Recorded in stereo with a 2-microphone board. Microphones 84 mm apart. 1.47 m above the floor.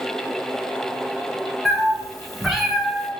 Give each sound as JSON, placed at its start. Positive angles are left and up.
{"t": 1.6, "sound": "a cat meowing", "side_deg": 5, "distance_m": 1.5}